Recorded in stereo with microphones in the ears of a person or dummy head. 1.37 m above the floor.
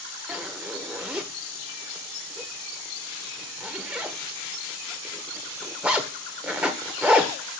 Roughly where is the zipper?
Centre.